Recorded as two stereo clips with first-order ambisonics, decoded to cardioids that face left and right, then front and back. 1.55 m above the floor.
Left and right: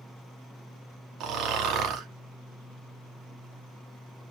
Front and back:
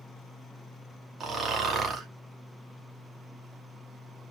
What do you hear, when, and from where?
1.2 s snoring: 125° right, 0.7 m